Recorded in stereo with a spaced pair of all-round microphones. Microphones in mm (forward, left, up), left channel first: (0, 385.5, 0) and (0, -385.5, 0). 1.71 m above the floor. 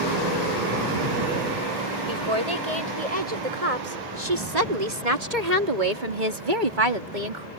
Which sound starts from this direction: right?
A woman speaking, at 2.1 s.